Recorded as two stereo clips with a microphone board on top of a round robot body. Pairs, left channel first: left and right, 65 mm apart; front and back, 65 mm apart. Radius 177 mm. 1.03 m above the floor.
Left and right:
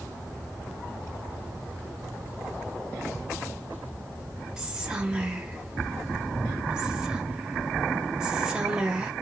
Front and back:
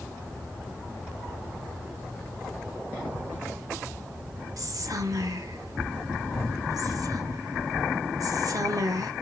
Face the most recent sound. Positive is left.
turn(degrees=-170)